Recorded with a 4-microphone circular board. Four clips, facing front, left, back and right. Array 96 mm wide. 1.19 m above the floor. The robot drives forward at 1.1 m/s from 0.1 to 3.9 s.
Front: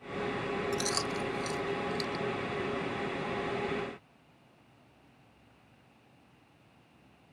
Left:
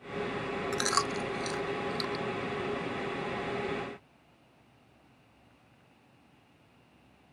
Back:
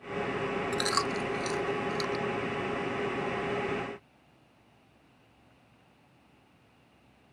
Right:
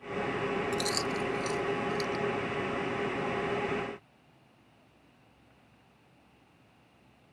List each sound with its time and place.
0.7 s chewing: 120° left; by 2.2 s 150° left